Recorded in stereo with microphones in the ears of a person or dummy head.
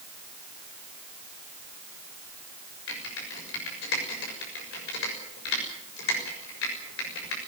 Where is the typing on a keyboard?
80° left, 6.5 m.